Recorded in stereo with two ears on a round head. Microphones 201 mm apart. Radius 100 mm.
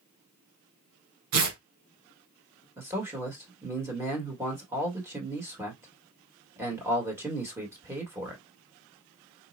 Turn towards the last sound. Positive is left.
turn(degrees=-10)  # may be behind; listen again after turning